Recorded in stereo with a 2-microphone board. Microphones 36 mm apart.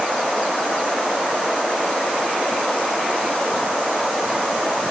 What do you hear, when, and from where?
Only background noise.